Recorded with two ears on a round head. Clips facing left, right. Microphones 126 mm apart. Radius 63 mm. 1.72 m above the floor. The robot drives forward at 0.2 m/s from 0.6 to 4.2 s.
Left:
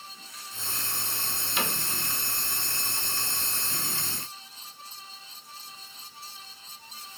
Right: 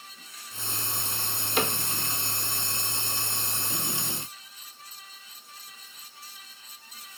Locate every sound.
1.6 s a cupboard door: 35° right (ahead or behind), 0.9 m; by 1.8 s 40° right (ahead or behind), 0.9 m